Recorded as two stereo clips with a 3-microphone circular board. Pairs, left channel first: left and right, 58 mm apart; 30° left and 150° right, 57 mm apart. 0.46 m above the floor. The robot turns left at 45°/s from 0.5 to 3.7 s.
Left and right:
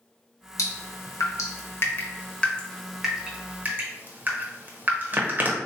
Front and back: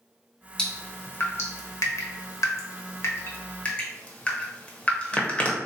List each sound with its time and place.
0.6 s dripping: 105° left, 0.7 m; by 5.6 s 35° right, 0.7 m